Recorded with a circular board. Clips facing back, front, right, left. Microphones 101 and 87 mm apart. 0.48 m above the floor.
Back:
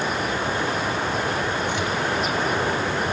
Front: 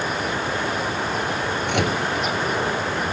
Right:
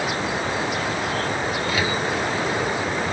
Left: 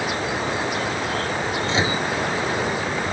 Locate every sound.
1.7 s a microwave: 25° left